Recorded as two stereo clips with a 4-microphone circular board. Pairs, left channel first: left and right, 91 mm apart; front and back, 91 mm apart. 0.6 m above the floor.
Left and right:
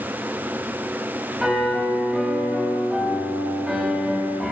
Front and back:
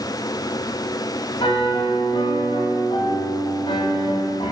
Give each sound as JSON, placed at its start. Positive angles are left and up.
{"t": 1.4, "sound": "a piano", "azimuth_deg": -5, "distance_m": 2.0}